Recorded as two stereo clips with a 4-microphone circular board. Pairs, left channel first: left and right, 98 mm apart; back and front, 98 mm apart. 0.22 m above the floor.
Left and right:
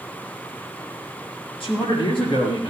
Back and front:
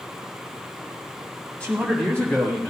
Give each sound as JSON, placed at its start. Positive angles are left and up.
{"t": 1.6, "sound": "a man speaking", "azimuth_deg": 105, "distance_m": 5.0}